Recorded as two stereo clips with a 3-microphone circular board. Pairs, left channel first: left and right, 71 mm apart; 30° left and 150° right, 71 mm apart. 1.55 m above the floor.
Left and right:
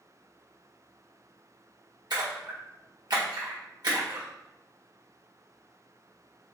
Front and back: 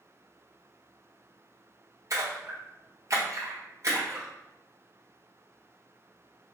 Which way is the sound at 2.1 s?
105° right.